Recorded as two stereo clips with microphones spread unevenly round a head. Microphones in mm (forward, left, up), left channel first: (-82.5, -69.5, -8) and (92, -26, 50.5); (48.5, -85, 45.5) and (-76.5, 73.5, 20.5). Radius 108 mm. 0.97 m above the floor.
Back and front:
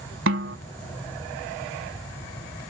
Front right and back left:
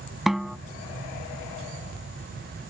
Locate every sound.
0.3 s a snare drum: 35° left